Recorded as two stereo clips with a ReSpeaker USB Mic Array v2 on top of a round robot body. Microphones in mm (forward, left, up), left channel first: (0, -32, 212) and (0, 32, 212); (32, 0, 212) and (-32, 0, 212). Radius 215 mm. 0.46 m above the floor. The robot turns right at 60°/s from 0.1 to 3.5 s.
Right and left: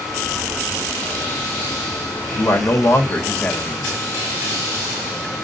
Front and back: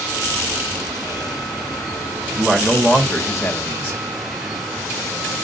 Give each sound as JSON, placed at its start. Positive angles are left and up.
{"t": 2.4, "sound": "a man speaking", "azimuth_deg": -85, "distance_m": 1.9}